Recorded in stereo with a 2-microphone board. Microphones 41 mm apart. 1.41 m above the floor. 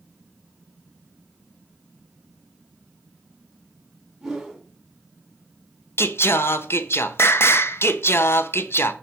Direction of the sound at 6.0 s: 65° left (ahead or behind).